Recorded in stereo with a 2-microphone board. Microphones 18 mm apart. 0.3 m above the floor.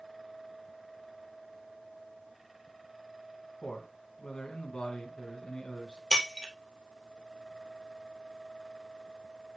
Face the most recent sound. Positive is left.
turn(degrees=20)  # may be behind; listen again after turning